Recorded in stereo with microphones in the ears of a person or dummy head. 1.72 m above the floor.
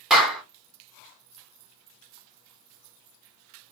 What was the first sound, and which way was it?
A clap, centre (ahead or behind).